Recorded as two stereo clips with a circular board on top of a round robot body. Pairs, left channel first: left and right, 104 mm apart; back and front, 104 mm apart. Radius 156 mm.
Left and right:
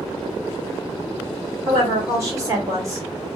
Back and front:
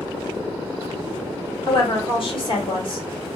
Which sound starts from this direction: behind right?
A woman speaking, at 1.7 s.